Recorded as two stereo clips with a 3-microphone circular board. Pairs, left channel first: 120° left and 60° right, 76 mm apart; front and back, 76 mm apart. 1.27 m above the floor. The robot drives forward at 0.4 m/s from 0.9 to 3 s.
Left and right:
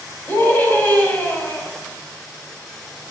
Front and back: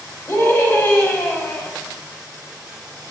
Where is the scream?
60° left, 3 m; by 1.7 s 65° left, 3 m.